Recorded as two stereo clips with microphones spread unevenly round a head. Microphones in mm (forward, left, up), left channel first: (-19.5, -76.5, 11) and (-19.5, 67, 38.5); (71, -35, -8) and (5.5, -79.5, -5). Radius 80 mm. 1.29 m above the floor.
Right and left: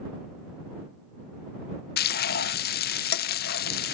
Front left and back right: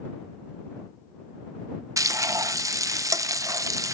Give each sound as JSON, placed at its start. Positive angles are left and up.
{"t": 2.0, "sound": "frying", "azimuth_deg": -95}